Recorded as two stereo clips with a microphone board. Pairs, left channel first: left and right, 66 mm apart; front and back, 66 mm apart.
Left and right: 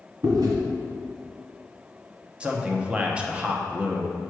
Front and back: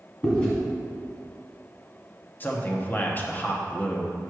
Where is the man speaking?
30° right, 0.9 m.